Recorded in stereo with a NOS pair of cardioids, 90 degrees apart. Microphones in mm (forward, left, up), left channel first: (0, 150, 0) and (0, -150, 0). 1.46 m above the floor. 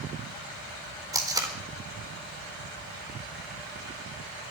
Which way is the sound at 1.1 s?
10° right.